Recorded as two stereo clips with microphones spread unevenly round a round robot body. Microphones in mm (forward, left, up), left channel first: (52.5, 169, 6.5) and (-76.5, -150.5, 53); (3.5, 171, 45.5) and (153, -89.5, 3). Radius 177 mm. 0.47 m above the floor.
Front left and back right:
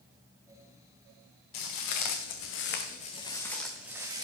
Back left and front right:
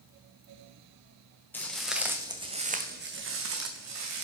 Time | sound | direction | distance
1.5 | footsteps | 40° left | 2.0 m